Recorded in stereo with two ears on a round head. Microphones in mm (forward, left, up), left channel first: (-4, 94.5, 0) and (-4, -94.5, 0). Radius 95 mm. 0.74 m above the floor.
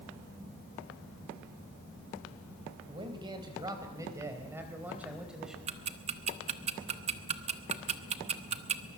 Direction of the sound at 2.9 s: 25° right (ahead or behind).